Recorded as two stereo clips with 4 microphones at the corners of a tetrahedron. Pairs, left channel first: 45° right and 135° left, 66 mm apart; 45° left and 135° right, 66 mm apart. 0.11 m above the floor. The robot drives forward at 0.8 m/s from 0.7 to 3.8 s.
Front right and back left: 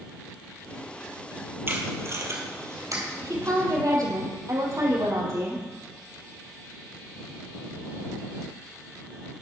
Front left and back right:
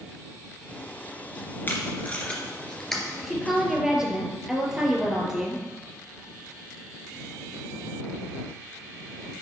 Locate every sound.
1.7 s tape being pulled: 95° left, 2.0 m; by 3.0 s 130° left, 2.5 m
3.2 s a woman speaking: 135° left, 2.5 m; by 5.6 s 145° left, 3 m